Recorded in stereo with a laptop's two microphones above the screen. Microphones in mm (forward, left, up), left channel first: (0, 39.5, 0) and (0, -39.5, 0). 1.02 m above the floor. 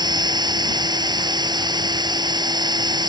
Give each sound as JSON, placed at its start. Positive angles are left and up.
{"t": 0.0, "sound": "a machine running", "side_deg": -65}